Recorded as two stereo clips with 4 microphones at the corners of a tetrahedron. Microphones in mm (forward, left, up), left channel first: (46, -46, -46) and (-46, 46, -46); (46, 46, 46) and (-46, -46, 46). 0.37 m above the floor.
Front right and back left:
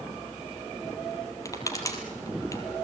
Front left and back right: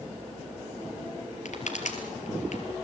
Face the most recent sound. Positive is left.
turn(degrees=20)